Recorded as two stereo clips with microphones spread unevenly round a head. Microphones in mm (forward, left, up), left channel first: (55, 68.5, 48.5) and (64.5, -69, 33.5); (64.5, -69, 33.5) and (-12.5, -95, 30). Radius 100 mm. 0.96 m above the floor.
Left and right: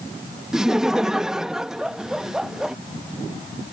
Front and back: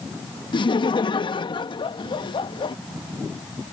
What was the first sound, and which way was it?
Laughter, straight ahead.